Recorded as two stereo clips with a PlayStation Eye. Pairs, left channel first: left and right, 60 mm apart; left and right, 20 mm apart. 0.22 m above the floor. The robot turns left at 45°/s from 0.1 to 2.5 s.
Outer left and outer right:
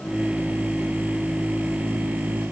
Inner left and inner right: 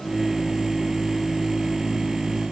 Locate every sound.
Only background noise.